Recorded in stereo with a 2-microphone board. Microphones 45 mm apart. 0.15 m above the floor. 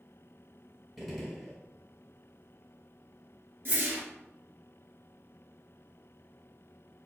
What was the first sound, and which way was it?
A gunshot, 5° right (ahead or behind).